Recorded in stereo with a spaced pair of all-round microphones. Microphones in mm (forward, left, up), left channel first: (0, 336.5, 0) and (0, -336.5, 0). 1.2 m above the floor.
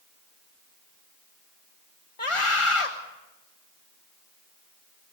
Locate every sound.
2.2 s a scream: 50° left (ahead or behind), 1.5 m